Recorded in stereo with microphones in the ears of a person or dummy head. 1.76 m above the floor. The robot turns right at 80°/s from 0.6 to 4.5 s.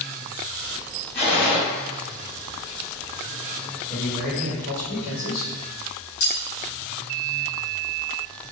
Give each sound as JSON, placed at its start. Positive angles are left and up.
{"t": 1.1, "sound": "a gunshot", "azimuth_deg": 110, "distance_m": 1.7}
{"t": 3.9, "sound": "a man speaking", "azimuth_deg": 25, "distance_m": 1.4}
{"t": 6.2, "sound": "cutlery clinking", "side_deg": 60, "distance_m": 1.7}